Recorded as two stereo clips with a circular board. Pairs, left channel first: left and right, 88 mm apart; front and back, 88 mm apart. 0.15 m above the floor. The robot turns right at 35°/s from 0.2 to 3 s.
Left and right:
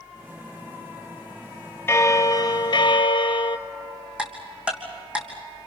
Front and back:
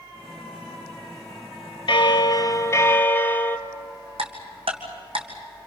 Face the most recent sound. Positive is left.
turn(degrees=-165)